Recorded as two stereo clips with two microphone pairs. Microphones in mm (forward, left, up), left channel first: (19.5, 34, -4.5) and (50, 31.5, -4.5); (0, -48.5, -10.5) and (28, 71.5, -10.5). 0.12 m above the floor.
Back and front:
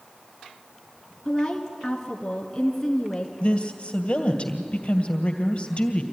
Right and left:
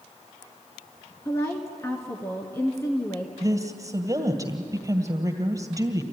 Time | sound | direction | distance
1.2 | a woman speaking | 130° right | 1.6 m
3.4 | a woman speaking | 135° left | 2 m